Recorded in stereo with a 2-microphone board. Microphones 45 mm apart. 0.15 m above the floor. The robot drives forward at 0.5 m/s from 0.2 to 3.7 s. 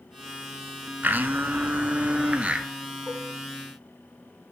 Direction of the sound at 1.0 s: 45° right (ahead or behind).